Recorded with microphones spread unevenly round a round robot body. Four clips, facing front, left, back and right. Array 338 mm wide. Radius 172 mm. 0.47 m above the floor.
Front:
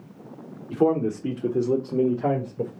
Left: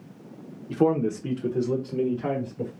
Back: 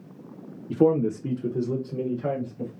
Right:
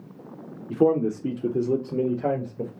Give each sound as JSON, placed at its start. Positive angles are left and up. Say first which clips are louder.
{"t": 0.7, "sound": "a man speaking", "louder": "right 2 dB, back 1 dB", "azimuth_deg": -170, "distance_m": 1.1}